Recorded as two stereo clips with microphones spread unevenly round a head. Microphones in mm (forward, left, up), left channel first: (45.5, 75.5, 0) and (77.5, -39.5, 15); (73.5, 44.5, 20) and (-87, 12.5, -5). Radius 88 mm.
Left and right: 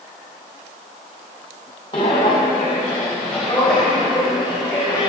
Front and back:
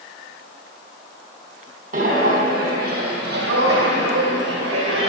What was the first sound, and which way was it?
Footsteps, 165° left.